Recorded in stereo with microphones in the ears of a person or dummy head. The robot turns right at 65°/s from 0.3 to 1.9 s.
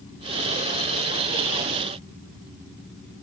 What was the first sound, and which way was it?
Only background noise.